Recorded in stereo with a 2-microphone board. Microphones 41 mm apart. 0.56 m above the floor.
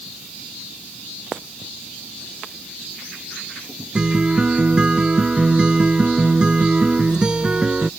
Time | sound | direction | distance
4.0 | a guitar | 20° right (ahead or behind) | ?